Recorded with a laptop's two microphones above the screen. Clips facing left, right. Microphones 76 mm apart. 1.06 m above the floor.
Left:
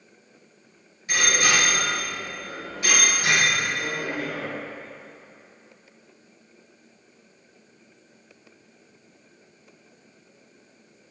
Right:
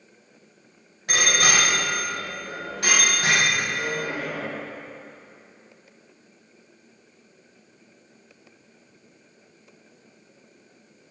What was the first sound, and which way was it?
A bicycle bell, 80° right.